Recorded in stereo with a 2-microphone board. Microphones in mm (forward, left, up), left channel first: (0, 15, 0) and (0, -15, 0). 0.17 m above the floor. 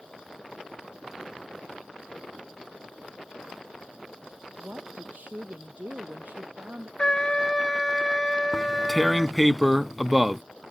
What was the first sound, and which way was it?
A woman speaking, 70° right (ahead or behind).